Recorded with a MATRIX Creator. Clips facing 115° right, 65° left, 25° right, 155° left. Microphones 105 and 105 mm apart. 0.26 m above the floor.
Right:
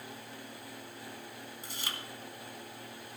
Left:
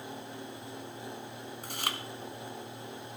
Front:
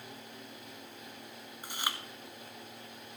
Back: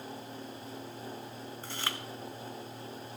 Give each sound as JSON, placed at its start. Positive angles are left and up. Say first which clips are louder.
{"t": 1.6, "sound": "chewing", "louder": "left 6 dB, front 1 dB", "azimuth_deg": 50, "distance_m": 1.0}